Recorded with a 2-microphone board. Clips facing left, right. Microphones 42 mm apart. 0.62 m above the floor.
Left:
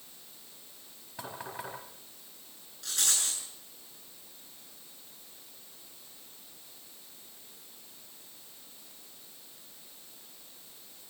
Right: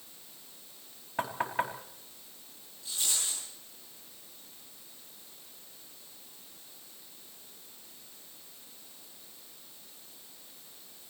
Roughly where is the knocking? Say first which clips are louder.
Right 9 dB; right.